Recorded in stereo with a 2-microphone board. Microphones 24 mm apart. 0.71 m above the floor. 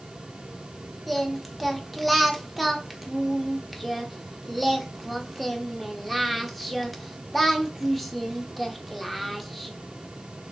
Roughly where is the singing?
Centre.